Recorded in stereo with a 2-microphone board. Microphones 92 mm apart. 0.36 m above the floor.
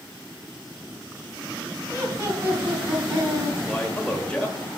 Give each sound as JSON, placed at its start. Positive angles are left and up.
{"t": 1.9, "sound": "laughter", "side_deg": -40, "distance_m": 3.5}
{"t": 3.7, "sound": "a man speaking", "side_deg": 10, "distance_m": 1.4}